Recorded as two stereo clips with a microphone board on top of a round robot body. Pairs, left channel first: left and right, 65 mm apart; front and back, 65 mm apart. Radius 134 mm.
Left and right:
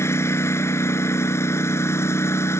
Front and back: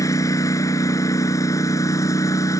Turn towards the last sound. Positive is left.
turn(degrees=40)